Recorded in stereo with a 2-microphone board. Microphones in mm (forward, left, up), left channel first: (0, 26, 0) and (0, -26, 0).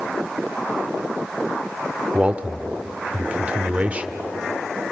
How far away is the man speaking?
About 1.5 m.